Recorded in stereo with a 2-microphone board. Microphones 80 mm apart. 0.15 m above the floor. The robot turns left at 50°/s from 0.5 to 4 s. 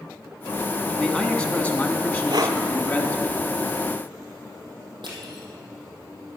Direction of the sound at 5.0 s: 80° right.